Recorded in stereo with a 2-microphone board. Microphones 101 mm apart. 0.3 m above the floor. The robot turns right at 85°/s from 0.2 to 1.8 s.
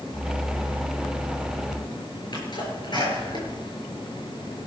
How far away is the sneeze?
About 6.5 m.